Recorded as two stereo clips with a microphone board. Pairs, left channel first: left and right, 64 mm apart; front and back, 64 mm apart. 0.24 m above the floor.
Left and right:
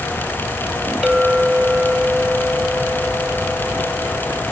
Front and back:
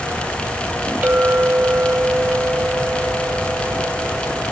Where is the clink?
165° right.